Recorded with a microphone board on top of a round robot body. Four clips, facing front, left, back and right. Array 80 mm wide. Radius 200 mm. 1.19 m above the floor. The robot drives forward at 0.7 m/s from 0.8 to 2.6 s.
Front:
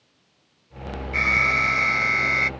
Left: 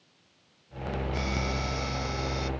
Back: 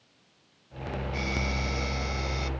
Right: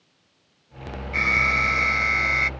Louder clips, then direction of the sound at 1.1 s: Right 14 dB, front 13 dB; 40° right.